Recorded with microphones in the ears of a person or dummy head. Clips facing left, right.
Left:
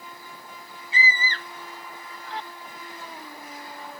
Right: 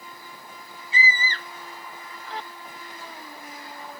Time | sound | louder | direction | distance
0.9 | a scream | right 1 dB | 80° right | ?